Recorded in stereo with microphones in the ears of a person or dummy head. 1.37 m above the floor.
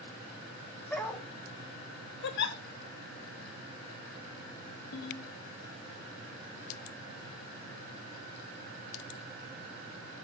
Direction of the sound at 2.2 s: 65° left (ahead or behind).